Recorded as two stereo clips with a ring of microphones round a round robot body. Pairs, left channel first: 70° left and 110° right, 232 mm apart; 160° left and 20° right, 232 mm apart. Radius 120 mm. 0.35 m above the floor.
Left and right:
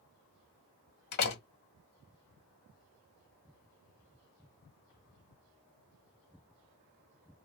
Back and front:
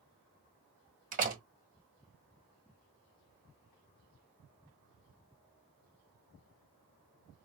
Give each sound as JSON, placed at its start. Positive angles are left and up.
{"t": 1.1, "sound": "a door slam", "azimuth_deg": 30, "distance_m": 1.8}